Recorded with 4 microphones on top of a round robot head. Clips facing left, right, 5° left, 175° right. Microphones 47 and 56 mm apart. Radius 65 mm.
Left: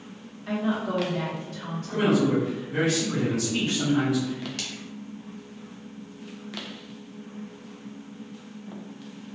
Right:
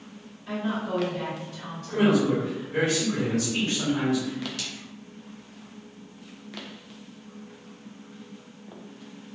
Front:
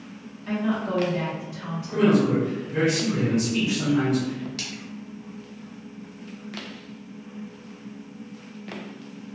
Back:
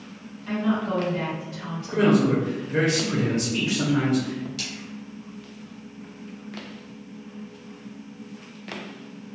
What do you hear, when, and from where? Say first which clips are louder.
0.5 s a woman speaking: left 2 dB, back 1 dB; 85° left, 1.0 m
1.9 s a man speaking: even, even; 175° left, 1.0 m
4.6 s a splash: left 1 dB, even; 50° left, 0.9 m